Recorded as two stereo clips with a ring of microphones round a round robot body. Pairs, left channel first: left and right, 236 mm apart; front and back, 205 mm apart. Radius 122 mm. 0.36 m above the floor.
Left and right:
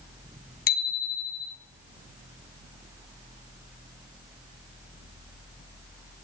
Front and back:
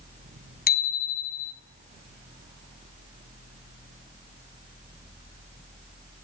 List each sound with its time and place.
0.7 s a bicycle bell: 40° left, 2.5 m